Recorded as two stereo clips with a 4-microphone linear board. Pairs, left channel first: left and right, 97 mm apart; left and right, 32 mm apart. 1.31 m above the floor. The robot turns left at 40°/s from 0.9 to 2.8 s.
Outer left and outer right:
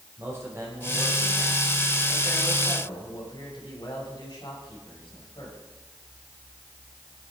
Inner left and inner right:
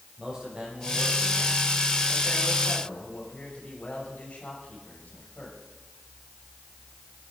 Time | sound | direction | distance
0.2 | a man speaking | 150° right | 6 m